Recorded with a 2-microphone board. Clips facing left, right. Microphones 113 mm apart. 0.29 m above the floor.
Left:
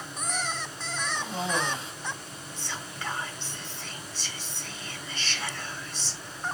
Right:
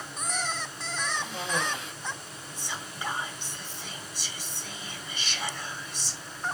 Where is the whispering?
15° right (ahead or behind), 1.2 m.